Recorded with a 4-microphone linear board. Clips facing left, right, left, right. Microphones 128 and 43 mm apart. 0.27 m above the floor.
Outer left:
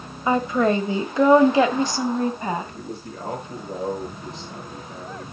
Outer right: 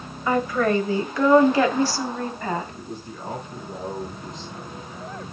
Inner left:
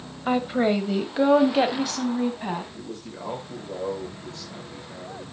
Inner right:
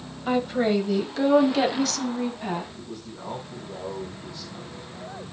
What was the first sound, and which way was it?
A woman speaking, 20° left (ahead or behind).